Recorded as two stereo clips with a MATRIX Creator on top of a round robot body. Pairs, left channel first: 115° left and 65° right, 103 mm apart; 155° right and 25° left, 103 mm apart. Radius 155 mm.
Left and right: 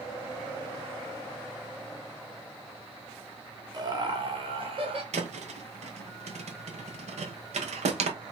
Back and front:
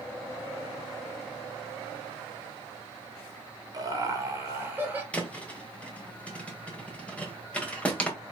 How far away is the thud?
About 1.1 m.